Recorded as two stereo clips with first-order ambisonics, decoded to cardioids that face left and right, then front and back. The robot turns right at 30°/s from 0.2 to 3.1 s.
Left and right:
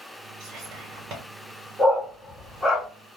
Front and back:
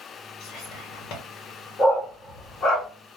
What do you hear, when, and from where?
0.4 s whispering: 65° right, 1.0 m; by 1.2 s 40° right, 1.0 m
1.8 s a dog barking: 25° right, 1.3 m; by 2.9 s 10° left, 1.3 m